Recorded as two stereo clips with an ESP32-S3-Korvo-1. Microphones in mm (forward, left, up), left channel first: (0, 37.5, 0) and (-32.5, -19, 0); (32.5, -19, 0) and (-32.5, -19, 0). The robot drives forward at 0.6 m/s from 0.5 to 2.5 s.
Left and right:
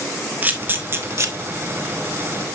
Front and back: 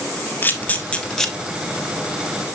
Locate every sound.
0.4 s a camera shutter: 60° right, 1.2 m; by 1.3 s 85° right, 1.0 m